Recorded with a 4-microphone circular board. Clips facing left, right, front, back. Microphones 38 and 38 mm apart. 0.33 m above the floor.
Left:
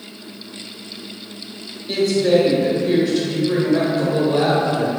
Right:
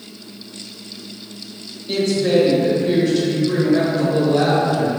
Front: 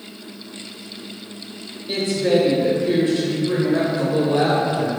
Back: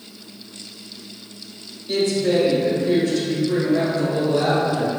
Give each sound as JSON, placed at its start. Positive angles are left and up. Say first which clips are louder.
{"t": 1.9, "sound": "a woman speaking", "louder": "left 1 dB, even", "azimuth_deg": 10, "distance_m": 0.9}